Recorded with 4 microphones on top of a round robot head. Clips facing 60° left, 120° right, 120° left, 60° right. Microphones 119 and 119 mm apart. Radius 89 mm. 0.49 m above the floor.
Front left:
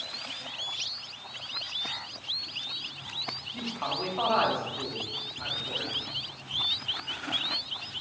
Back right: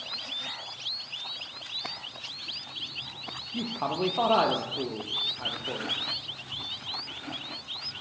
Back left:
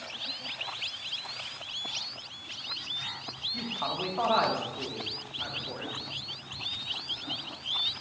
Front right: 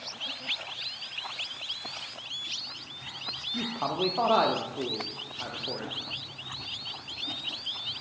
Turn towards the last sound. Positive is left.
turn(degrees=-100)